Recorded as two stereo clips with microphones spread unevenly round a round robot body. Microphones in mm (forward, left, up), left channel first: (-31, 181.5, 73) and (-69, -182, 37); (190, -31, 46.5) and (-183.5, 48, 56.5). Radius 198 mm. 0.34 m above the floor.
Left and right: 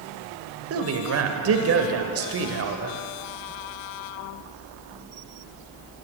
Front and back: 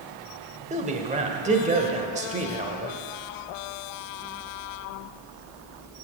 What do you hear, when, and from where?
0.7 s a man speaking: 125° right, 1.3 m